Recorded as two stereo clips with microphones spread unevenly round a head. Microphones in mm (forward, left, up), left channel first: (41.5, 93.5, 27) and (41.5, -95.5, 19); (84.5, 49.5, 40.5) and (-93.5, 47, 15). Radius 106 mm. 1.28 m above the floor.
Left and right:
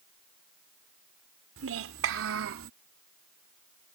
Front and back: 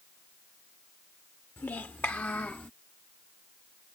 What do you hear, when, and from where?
1.6 s a child speaking: 80° right